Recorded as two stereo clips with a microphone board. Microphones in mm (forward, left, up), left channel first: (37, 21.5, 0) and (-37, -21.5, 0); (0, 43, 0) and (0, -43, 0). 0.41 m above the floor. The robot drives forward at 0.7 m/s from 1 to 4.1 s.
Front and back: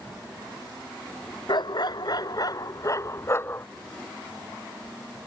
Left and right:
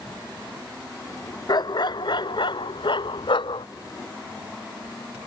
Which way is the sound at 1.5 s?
55° left.